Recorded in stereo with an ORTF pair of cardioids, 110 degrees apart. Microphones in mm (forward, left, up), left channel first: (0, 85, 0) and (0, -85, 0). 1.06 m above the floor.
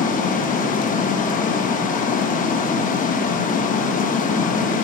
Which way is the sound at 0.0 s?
50° left.